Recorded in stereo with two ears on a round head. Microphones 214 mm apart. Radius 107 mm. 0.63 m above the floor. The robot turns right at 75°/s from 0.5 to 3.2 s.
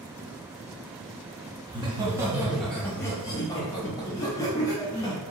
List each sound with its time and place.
1.7 s laughter: 20° right (ahead or behind), 1.0 m; by 5.2 s 15° left (ahead or behind), 1.0 m